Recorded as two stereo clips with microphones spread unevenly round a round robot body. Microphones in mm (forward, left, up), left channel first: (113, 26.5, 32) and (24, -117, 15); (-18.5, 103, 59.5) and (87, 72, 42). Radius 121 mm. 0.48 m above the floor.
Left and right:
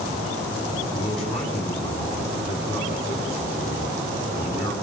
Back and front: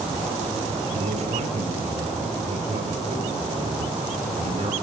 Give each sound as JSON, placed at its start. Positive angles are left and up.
{"t": 0.9, "sound": "a man speaking", "azimuth_deg": -30, "distance_m": 5.0}